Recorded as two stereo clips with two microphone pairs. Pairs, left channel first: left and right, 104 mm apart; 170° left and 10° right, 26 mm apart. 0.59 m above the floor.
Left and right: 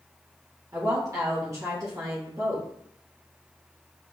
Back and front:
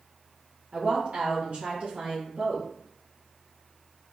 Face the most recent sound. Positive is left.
turn(degrees=-40)